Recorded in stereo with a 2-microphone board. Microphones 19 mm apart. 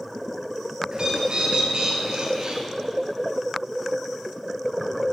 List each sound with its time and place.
0.9 s a bird: 50° right (ahead or behind), 0.9 m